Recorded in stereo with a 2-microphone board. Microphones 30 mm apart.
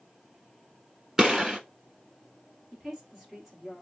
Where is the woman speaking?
5° right (ahead or behind), 2 m.